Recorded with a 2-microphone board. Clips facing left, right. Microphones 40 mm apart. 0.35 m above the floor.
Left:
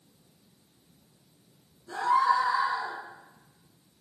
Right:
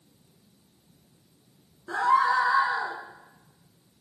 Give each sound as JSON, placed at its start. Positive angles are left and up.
{"t": 1.9, "sound": "a scream", "side_deg": -60, "distance_m": 5.5}